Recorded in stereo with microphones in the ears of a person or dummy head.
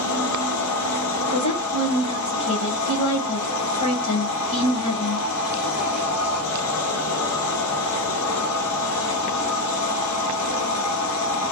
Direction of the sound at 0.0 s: 85° left.